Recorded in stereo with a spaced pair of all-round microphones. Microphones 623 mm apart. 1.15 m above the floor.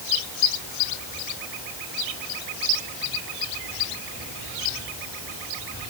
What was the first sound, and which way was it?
Only background noise.